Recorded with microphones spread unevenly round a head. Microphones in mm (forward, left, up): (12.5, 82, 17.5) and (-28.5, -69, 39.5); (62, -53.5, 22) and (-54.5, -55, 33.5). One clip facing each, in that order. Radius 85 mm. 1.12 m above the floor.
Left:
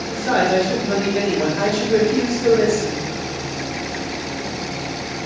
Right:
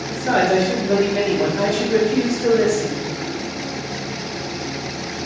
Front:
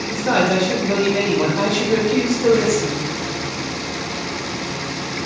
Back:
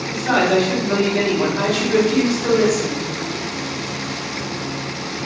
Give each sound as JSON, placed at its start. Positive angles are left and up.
{"t": 0.1, "sound": "a man speaking", "azimuth_deg": -35, "distance_m": 1.0}